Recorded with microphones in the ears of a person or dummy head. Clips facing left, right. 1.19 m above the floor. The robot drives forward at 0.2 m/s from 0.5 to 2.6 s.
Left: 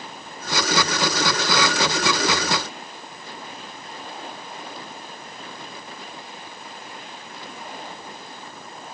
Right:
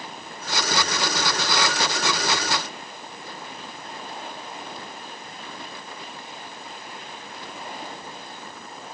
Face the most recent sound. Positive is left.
No sound to turn to.